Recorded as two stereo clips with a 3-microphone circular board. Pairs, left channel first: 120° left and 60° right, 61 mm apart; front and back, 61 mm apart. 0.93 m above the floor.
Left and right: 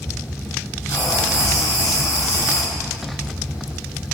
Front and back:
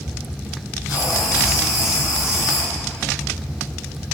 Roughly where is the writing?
Left.